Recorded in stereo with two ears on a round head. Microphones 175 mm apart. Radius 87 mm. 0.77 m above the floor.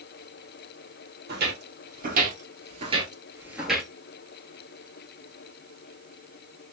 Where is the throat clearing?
No throat clearing in this recording.